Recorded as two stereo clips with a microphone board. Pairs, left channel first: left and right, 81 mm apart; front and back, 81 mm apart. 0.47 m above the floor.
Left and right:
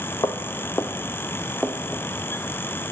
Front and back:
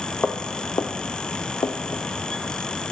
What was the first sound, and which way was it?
Footsteps, 65° left.